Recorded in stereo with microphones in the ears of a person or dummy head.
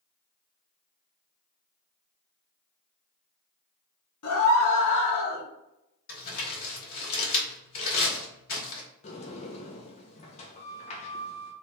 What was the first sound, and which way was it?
A scream, 75° left (ahead or behind).